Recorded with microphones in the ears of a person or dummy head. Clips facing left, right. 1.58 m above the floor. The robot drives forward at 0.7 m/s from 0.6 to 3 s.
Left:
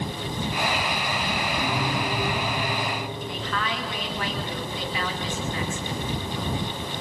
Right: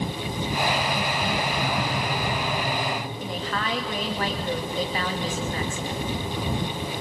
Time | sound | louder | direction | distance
1.6 | a piano | even | 5° left (ahead or behind) | 5.5 m
3.2 | a woman speaking | right 1 dB | 35° right (ahead or behind) | 2.5 m